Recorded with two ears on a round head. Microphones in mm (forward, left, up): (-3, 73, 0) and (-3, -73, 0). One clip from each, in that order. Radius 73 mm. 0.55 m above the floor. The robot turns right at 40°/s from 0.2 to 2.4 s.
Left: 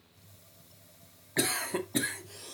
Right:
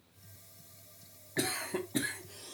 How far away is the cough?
About 0.7 m.